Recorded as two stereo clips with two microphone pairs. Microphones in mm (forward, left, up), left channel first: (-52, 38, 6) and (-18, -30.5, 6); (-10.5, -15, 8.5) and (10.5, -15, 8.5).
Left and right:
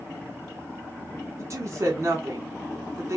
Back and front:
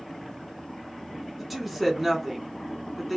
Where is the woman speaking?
80° right, 1.1 m.